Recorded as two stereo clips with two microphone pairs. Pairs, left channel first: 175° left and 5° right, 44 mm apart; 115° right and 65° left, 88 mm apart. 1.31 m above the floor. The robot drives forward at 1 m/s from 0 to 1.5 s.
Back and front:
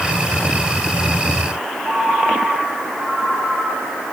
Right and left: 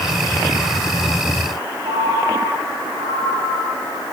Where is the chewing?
No chewing in this recording.